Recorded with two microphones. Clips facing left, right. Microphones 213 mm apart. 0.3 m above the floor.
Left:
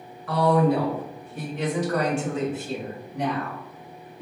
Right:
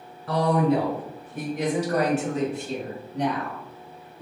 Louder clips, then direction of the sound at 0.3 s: Left 1 dB; 30° right (ahead or behind).